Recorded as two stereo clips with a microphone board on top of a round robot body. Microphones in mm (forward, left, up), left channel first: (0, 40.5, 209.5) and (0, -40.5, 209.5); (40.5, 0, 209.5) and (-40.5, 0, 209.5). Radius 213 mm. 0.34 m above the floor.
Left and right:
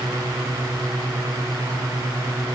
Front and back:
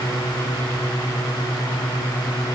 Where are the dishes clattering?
I don't hear dishes clattering.